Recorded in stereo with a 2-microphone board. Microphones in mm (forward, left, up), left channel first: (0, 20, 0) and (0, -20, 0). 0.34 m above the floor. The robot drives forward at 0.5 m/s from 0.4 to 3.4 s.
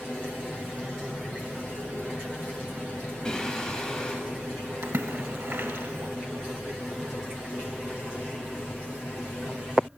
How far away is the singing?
About 1.1 m.